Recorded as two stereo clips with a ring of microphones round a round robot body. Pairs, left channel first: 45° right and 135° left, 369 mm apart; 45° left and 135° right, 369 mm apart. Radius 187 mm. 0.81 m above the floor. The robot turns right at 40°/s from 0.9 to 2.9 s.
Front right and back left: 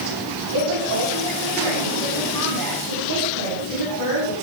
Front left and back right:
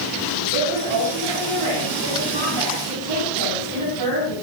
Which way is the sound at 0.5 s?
175° left.